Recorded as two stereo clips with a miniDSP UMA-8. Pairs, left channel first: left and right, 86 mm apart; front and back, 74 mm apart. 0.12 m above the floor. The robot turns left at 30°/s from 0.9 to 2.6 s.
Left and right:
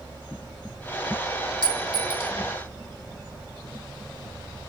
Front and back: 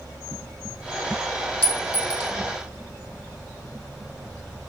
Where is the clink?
65° left, 2 m; by 2.3 s 45° left, 2 m.